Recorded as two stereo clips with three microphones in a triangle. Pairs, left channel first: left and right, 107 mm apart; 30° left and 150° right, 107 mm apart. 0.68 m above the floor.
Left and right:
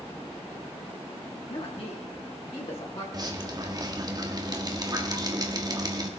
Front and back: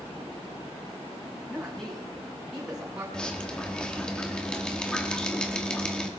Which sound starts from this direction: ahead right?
Dripping, at 3.1 s.